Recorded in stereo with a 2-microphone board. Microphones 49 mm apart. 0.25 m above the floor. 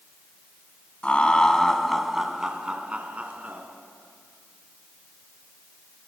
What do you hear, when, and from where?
1.0 s laughter: 25° left (ahead or behind), 2 m; by 3.6 s 35° right (ahead or behind), 3 m